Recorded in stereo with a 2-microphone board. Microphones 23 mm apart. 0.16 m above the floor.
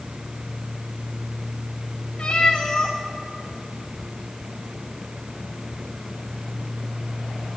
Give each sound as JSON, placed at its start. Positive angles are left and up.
{"t": 2.2, "sound": "a cat meowing", "side_deg": 60, "distance_m": 6.0}